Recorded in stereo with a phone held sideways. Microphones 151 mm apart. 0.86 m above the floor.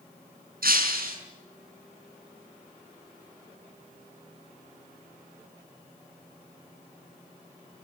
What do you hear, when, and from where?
0.6 s breaking glass: 75° right (ahead or behind), 6 m